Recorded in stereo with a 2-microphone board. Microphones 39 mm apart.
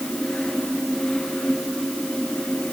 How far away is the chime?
I don't hear a chime.